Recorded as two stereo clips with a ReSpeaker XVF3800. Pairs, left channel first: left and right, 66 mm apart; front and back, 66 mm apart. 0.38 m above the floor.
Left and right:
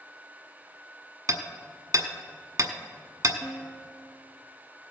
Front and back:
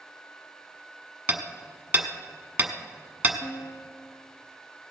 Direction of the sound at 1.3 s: 115° right.